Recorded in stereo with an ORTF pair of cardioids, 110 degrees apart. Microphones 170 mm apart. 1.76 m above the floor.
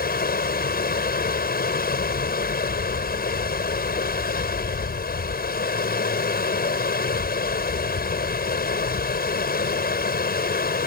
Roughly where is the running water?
Ahead left.